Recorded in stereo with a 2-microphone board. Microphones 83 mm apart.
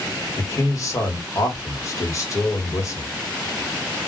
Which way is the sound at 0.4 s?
35° left (ahead or behind).